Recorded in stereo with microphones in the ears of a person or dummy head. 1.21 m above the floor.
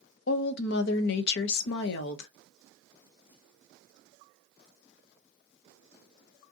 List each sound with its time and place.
0.3 s a woman speaking: 60° left (ahead or behind), 0.5 m